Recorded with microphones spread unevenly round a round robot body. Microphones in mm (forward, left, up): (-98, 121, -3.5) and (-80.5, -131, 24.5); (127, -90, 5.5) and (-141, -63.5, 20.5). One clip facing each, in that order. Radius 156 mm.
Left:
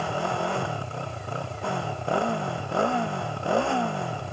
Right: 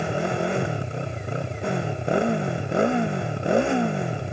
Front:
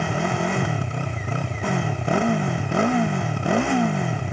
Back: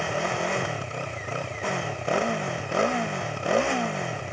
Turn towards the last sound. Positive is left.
turn(degrees=-10)